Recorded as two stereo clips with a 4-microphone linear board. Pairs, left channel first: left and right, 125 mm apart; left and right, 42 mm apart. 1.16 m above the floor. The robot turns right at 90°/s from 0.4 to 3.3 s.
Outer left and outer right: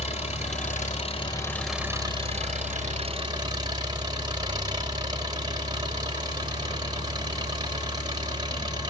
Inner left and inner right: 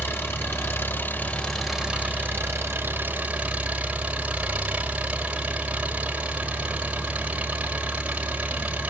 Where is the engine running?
65° left, 4 m; by 8.9 s 35° right, 4 m.